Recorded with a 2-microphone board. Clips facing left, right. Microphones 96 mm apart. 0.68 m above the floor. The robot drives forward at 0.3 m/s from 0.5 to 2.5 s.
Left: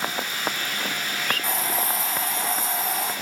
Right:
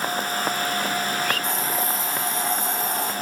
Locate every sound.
1.4 s a hiss: 5° left (ahead or behind), 1.7 m